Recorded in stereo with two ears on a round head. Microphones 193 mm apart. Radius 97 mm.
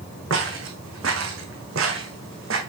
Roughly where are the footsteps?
Right.